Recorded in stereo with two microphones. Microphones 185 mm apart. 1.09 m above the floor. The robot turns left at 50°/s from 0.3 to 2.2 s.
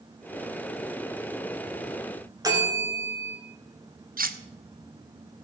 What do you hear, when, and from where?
2.4 s a bell: 20° right (ahead or behind), 2.5 m
4.2 s cutlery clinking: 50° right (ahead or behind), 0.6 m